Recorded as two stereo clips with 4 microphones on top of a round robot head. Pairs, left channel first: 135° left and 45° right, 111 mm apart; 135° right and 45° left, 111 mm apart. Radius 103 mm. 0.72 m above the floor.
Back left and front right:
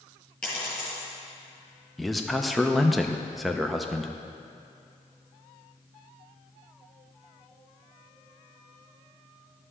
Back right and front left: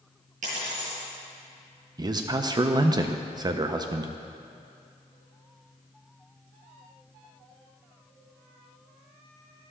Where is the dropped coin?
50° left, 3 m.